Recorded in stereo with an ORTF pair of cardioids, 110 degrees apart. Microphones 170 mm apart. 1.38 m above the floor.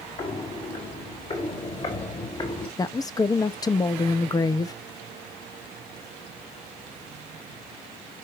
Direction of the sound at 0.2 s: 45° left.